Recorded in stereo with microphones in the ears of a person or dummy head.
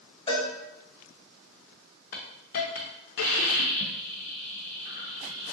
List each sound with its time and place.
0.3 s a cowbell: 30° left (ahead or behind), 0.5 m
2.1 s a hiss: 55° left (ahead or behind), 0.5 m